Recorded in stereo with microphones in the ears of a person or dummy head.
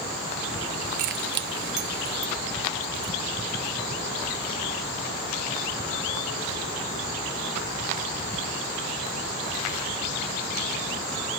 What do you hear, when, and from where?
1.0 s keys jangling: 45° right (ahead or behind), 0.5 m; by 3.2 s 70° right (ahead or behind), 3.5 m